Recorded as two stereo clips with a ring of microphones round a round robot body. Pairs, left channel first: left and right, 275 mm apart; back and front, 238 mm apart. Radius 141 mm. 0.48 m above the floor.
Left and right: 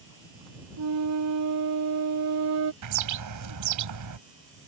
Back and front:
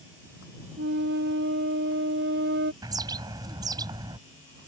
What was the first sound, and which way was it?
A flute, 55° right.